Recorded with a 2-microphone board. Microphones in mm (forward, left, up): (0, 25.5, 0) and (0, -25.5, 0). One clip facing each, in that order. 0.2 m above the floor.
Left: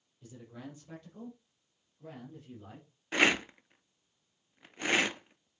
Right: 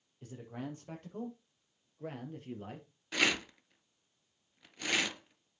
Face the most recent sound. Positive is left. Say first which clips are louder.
# left 4 dB
turn(degrees=30)  # may be behind; listen again after turning